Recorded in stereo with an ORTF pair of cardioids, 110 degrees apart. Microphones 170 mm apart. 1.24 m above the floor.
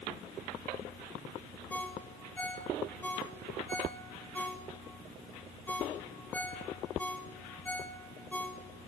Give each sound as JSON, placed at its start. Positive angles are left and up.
{"t": 1.7, "sound": "a ringtone", "azimuth_deg": 10, "distance_m": 3.0}